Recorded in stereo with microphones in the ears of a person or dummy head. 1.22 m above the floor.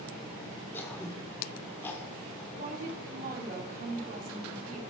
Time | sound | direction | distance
0.7 | throat clearing | 15° left (ahead or behind) | 2 m
2.5 | a woman speaking | 45° right (ahead or behind) | 2.5 m